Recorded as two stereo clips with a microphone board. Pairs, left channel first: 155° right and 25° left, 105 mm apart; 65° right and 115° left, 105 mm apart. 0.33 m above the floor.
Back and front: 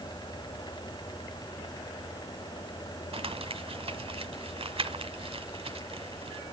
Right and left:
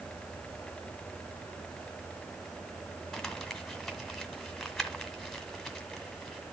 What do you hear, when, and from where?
3.1 s crumpling: 20° left, 1.8 m